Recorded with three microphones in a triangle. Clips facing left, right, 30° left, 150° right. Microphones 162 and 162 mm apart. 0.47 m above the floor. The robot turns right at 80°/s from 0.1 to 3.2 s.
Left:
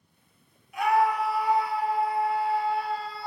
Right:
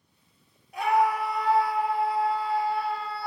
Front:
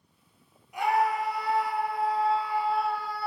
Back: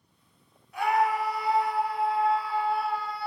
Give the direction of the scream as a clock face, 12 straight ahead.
1 o'clock.